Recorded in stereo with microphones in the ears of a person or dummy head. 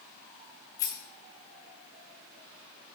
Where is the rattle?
20° left (ahead or behind), 1.1 m.